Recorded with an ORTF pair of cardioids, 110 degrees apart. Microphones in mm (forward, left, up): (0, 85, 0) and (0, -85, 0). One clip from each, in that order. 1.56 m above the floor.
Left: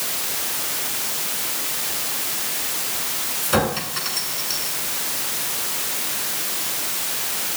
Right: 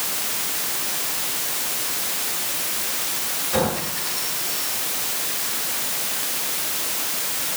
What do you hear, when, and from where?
3.4 s a clink: 65° left, 9 m